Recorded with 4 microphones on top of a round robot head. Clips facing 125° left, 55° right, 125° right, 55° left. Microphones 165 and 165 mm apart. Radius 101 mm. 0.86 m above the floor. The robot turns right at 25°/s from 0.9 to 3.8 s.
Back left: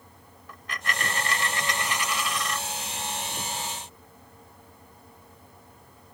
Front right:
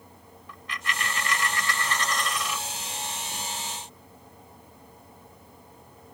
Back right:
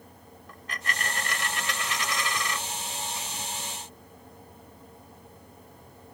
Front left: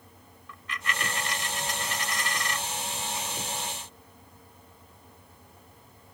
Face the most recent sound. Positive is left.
turn(degrees=-110)